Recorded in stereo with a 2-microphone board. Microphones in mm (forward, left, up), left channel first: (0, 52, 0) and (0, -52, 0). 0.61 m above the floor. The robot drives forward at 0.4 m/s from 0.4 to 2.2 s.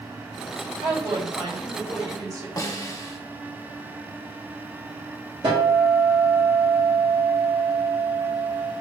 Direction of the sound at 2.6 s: 35° left (ahead or behind).